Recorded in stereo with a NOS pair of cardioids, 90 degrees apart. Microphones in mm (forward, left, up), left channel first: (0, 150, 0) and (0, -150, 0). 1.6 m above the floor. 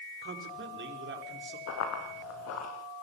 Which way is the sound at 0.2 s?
40° right.